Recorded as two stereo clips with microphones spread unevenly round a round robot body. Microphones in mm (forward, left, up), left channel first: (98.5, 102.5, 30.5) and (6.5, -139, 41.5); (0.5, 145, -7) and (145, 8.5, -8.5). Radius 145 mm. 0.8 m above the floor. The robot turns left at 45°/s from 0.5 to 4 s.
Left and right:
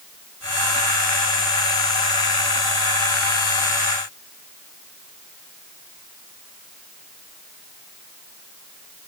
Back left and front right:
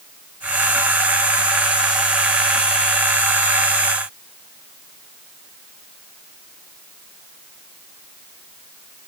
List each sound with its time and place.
Only background noise.